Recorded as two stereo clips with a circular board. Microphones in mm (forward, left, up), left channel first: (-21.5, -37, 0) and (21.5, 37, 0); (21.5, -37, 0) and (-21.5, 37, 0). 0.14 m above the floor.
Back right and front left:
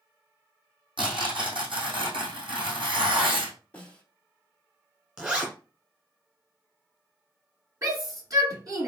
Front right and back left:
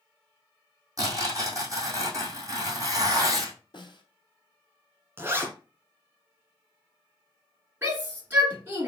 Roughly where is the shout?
Ahead left.